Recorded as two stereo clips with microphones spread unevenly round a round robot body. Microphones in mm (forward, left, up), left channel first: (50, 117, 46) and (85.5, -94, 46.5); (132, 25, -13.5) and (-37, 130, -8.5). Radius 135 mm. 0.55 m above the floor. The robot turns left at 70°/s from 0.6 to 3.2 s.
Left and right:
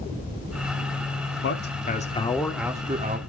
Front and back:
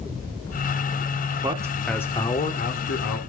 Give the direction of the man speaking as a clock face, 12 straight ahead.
9 o'clock.